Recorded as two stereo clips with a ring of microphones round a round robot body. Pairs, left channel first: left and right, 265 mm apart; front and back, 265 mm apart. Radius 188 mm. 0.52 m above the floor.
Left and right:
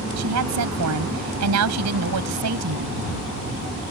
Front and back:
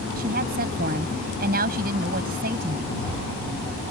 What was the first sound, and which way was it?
A woman speaking, 115° right.